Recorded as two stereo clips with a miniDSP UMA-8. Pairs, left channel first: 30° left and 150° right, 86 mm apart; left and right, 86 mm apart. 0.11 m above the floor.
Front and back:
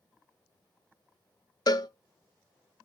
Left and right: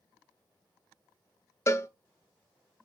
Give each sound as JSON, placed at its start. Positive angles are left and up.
{"t": 1.7, "sound": "a cowbell", "azimuth_deg": 45, "distance_m": 0.5}